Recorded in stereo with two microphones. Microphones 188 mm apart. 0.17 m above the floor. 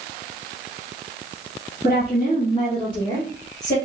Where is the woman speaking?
35° left (ahead or behind), 1.6 m; by 3.8 s 20° left (ahead or behind), 2.5 m.